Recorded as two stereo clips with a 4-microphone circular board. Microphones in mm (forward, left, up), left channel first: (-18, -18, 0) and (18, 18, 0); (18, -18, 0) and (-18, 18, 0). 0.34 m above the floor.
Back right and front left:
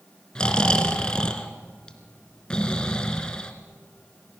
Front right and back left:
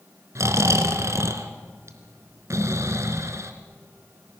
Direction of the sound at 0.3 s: 150° left.